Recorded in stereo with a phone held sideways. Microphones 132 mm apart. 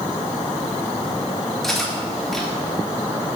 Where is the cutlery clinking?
Centre (ahead or behind), 5.5 m.